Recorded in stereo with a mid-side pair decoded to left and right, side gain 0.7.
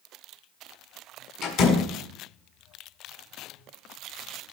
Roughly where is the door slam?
Ahead left.